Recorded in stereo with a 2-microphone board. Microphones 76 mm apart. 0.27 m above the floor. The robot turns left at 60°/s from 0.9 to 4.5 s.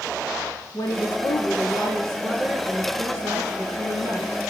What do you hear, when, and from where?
0.7 s a woman speaking: 80° left, 4 m; by 4.3 s 125° right, 4 m